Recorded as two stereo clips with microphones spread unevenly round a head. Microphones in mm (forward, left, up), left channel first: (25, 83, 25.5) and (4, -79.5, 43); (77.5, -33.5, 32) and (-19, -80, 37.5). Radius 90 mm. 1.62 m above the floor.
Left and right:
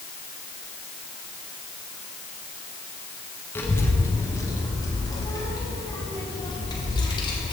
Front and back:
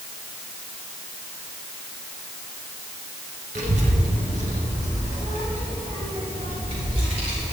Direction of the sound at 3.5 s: 165° left.